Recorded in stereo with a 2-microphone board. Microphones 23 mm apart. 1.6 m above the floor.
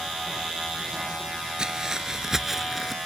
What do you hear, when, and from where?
1.6 s footsteps: 35° right (ahead or behind); by 3.0 s centre (ahead or behind)